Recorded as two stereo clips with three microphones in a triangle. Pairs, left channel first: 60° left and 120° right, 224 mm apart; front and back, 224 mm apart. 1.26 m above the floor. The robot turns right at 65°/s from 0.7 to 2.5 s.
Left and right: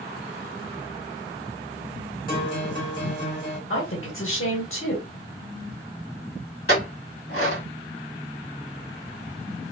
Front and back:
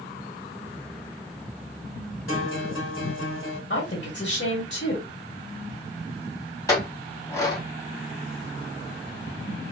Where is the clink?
75° left, 1.5 m.